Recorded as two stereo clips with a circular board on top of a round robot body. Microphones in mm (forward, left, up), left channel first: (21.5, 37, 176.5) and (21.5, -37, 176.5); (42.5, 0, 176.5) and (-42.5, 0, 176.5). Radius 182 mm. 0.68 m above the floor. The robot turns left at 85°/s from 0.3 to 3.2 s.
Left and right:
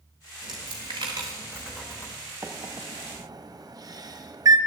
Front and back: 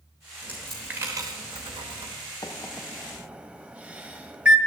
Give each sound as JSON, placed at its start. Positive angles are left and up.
{"t": 0.4, "sound": "a dropped coin", "azimuth_deg": -65, "distance_m": 0.6}
{"t": 2.4, "sound": "a microwave", "azimuth_deg": -40, "distance_m": 1.0}